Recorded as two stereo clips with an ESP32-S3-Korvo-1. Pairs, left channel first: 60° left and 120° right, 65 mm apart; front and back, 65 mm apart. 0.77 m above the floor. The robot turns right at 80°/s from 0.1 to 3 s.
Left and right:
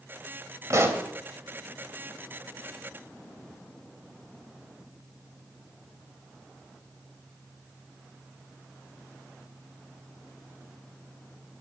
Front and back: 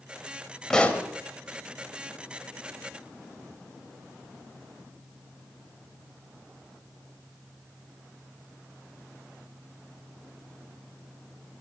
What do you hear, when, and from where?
0.7 s a pop: 80° right, 1.3 m; by 1.1 s 50° right, 1.3 m